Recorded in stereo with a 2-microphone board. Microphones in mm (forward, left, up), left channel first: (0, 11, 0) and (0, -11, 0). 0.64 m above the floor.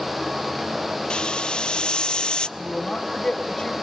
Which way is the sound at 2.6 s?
35° left (ahead or behind).